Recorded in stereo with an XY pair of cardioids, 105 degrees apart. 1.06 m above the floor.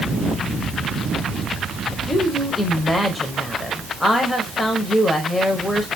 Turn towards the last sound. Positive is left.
turn(degrees=10)